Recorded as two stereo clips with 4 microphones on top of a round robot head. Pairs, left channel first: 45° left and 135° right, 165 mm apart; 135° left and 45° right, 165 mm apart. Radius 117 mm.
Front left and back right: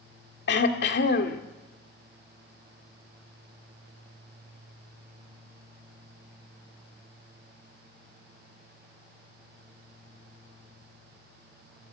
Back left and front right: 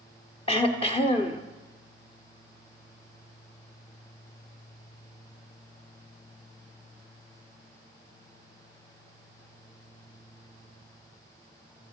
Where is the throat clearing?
75° left, 1.7 m.